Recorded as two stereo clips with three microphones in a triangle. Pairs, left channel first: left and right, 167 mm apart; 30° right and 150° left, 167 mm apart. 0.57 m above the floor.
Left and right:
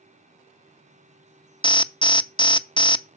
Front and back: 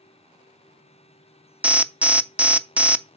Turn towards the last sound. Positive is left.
turn(degrees=80)